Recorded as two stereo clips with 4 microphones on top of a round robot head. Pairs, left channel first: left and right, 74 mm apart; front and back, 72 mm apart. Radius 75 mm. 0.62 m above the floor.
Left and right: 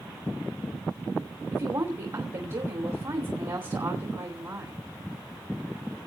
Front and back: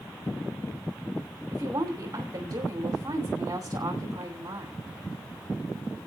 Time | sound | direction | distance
1.5 | a woman speaking | 135° right | 2.5 m